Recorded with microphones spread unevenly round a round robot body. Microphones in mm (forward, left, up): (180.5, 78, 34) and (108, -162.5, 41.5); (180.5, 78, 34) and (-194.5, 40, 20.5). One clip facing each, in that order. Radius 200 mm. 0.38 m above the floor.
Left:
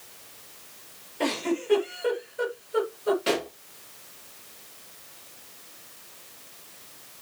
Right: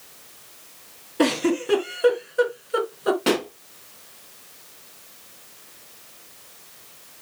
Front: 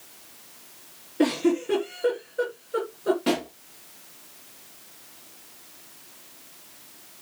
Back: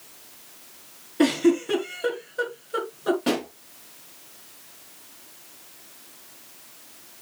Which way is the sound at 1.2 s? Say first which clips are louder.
Right 7 dB, back 3 dB; 105° right.